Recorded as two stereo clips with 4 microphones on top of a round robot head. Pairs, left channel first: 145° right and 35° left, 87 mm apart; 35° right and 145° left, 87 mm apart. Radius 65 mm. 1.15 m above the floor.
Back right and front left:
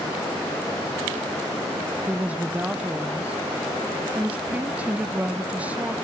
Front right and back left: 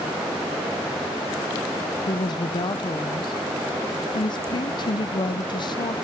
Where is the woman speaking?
35° right, 0.7 m.